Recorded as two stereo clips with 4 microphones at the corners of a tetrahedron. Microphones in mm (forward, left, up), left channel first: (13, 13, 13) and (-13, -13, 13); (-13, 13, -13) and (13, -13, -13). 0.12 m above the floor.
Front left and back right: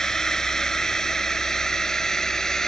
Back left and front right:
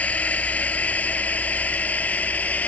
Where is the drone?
115° left.